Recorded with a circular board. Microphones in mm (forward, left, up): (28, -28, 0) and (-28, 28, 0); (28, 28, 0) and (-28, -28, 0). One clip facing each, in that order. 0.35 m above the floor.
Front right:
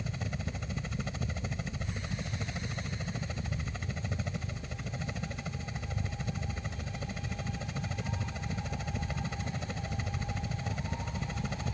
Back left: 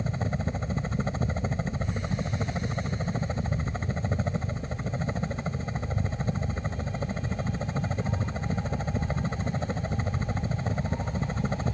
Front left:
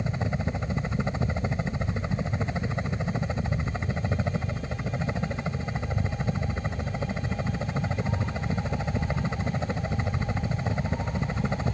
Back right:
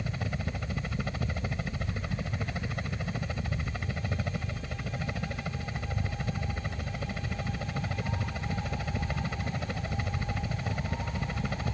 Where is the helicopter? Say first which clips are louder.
Back left 8 dB, front left 6 dB; 100° left.